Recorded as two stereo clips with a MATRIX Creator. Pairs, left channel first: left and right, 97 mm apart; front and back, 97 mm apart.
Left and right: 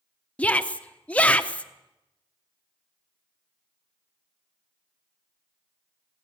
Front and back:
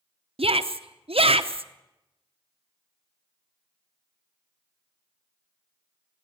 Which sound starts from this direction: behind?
A shout, at 0.4 s.